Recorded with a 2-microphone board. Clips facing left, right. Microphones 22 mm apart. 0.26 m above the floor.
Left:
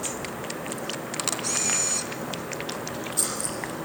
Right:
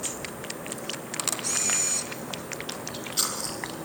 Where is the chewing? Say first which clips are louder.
Even; 45° right (ahead or behind), 5.5 m.